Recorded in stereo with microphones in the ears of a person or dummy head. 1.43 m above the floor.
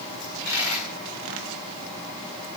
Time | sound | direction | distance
0.2 | a dropped coin | 65° left (ahead or behind) | 8 m